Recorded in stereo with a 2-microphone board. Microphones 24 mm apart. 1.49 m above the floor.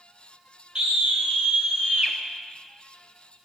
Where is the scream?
50° right (ahead or behind), 6.5 m; by 2.1 s 55° right (ahead or behind), 8 m.